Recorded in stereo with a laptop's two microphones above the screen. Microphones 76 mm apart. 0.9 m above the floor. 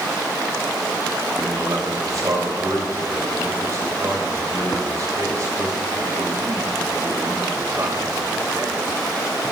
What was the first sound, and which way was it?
A man speaking, 50° right (ahead or behind).